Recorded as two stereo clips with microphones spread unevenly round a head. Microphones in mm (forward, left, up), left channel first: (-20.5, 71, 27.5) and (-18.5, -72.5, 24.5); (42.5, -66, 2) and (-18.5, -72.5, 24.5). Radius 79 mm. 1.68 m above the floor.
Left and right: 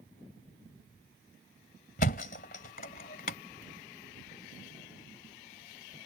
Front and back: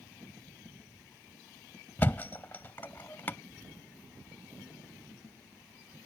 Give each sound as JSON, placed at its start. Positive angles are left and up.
{"t": 2.0, "sound": "a thud", "azimuth_deg": 95}